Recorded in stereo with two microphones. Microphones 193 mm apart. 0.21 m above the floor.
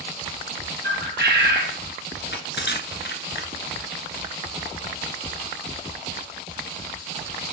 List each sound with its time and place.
0.8 s a bird: 65° right (ahead or behind), 1.7 m
2.2 s crushing: 70° left (ahead or behind), 1.4 m